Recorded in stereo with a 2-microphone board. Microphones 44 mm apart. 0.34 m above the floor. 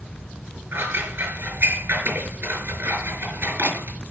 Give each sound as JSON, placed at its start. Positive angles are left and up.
{"t": 0.7, "sound": "scissors", "side_deg": -50, "distance_m": 5.5}